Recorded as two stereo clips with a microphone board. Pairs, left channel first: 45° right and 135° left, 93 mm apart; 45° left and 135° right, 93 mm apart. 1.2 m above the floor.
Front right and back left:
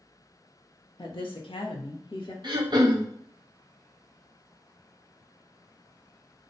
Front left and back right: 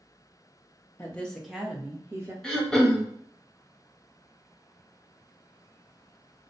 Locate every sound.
1.0 s a woman speaking: 20° right, 0.6 m; by 2.3 s 75° right, 1.0 m
2.4 s throat clearing: 130° left, 0.7 m